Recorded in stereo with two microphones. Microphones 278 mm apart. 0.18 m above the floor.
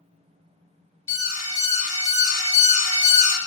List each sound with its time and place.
1.1 s an alarm: 30° right (ahead or behind), 1.0 m